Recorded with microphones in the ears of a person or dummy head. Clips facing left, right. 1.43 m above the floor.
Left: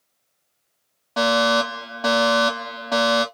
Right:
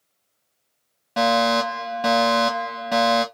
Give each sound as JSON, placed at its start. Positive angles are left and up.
{"t": 1.2, "sound": "a fire alarm", "side_deg": -20, "distance_m": 1.4}